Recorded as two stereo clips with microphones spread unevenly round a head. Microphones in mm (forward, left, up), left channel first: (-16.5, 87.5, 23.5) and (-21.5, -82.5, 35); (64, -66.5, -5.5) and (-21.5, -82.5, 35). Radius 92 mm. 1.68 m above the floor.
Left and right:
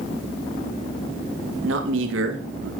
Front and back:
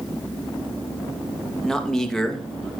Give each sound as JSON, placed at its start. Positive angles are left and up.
{"t": 1.6, "sound": "a man speaking", "azimuth_deg": -75, "distance_m": 2.5}